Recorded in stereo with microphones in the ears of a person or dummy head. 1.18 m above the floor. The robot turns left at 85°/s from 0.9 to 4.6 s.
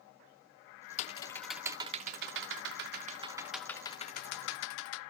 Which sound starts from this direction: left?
Typing on a keyboard, at 1.0 s.